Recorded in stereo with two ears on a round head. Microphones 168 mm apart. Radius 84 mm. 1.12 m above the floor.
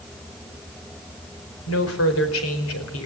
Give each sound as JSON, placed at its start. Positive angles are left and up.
{"t": 1.7, "sound": "a woman speaking", "side_deg": 85, "distance_m": 4.5}